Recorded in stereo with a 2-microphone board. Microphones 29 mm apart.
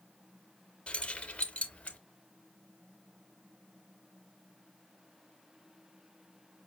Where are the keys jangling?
30° left (ahead or behind), 0.6 m; by 2.0 s 40° left (ahead or behind), 1.0 m.